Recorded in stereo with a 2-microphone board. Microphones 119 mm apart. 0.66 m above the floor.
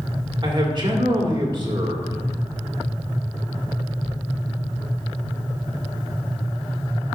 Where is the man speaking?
45° right (ahead or behind), 1.8 m.